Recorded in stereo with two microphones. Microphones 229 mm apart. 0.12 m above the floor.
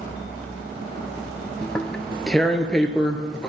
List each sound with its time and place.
1.6 s tearing paper: 5° left (ahead or behind), 0.7 m